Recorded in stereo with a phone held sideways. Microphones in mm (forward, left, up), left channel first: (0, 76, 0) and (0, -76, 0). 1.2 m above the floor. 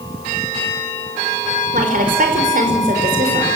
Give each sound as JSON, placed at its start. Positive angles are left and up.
{"t": 1.7, "sound": "a woman speaking", "side_deg": -60, "distance_m": 4.5}